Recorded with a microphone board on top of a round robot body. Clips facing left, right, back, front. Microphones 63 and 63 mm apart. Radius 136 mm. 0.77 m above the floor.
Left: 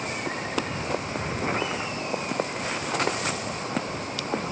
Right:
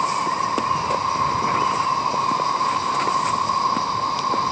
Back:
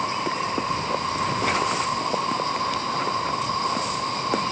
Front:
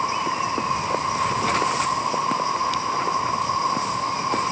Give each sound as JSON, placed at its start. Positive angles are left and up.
{"t": 0.0, "sound": "an insect", "azimuth_deg": -75}